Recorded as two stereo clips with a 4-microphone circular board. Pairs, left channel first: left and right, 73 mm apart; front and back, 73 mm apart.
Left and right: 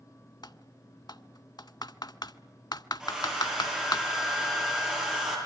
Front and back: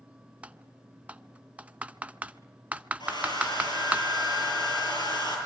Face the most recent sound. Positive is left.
turn(degrees=-10)